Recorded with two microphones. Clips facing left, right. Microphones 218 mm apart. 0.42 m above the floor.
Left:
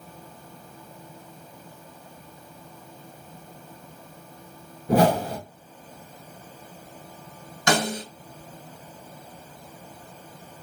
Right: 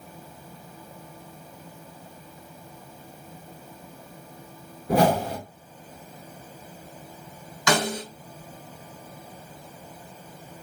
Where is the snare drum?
60° left (ahead or behind), 2 m.